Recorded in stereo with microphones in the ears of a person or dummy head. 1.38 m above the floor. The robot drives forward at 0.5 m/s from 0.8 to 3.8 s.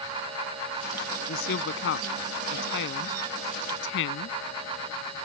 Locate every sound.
1.3 s a woman speaking: 70° left (ahead or behind); by 4.4 s 75° left (ahead or behind)